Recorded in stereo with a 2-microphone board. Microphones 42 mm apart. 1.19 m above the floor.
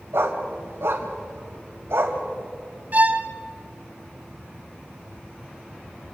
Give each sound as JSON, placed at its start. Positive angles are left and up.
{"t": 0.1, "sound": "a dog barking", "side_deg": -70, "distance_m": 2.5}
{"t": 2.9, "sound": "a violin", "side_deg": -40, "distance_m": 1.2}